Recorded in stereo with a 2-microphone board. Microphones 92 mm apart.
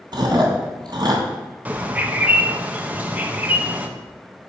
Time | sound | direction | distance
0.1 | chewing | 55° right (ahead or behind) | 2 m
1.6 | a bird | 15° right (ahead or behind) | 0.8 m